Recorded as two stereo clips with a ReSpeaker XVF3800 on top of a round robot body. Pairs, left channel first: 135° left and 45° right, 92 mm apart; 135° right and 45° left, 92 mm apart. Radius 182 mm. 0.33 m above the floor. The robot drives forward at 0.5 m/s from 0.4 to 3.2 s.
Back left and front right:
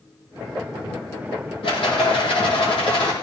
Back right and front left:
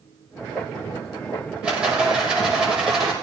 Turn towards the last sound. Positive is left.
turn(degrees=130)